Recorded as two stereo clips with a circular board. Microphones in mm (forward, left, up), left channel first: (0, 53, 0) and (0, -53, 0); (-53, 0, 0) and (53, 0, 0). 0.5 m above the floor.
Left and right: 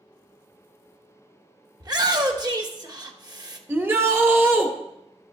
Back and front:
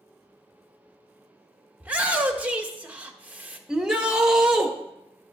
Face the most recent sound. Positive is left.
turn(degrees=-70)